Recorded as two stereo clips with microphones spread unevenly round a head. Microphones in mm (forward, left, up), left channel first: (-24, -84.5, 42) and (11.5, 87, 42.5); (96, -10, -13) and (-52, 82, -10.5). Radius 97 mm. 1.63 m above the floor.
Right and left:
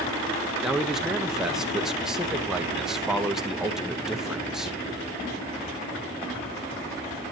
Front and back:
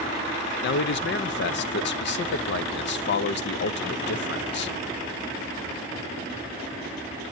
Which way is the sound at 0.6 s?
10° right.